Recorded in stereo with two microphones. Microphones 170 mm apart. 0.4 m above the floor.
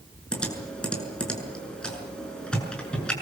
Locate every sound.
0.3 s typing on a keyboard: 5° left (ahead or behind), 6.5 m